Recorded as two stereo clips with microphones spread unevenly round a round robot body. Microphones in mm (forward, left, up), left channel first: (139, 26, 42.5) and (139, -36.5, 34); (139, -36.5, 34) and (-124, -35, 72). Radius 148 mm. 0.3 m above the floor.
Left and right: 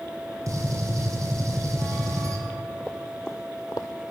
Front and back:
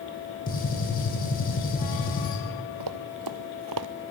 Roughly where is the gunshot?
Ahead right.